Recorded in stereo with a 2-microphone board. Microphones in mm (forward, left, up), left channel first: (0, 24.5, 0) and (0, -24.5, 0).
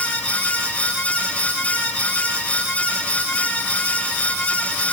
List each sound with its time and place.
Only background noise.